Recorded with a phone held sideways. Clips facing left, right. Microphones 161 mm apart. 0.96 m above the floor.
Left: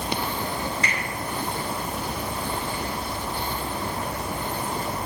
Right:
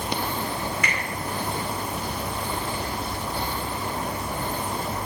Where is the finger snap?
30° left (ahead or behind), 2.5 m.